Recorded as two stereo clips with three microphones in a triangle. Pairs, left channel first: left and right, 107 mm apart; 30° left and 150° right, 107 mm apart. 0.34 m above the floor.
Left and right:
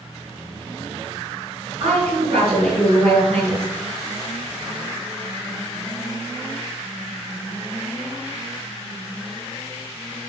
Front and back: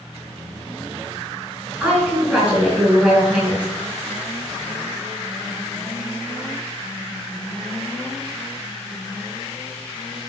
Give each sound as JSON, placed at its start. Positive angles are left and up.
{"t": 1.8, "sound": "a woman speaking", "azimuth_deg": -75, "distance_m": 3.5}